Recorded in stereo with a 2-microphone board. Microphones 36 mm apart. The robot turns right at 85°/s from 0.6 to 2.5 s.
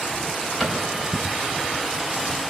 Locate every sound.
0.6 s a cupboard door: 10° right (ahead or behind), 4.5 m; by 0.8 s 30° right (ahead or behind), 4.5 m